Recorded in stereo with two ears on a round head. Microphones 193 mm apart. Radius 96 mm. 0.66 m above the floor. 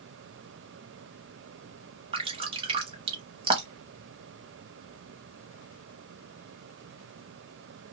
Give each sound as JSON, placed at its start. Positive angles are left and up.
{"t": 2.1, "sound": "dripping", "side_deg": -25, "distance_m": 0.7}